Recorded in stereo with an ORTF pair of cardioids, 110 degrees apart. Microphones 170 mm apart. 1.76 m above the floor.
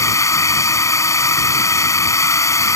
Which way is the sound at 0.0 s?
20° left.